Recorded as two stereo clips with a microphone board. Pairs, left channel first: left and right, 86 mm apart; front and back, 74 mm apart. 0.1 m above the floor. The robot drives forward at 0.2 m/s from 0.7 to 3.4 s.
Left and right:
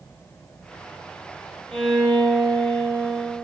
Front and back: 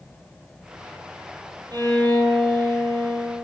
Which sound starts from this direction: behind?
A violin, at 1.7 s.